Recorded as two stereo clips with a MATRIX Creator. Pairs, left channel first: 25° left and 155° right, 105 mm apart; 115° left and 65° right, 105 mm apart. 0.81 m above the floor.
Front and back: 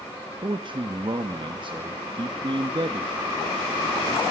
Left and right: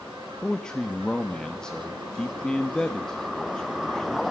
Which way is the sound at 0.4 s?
165° right.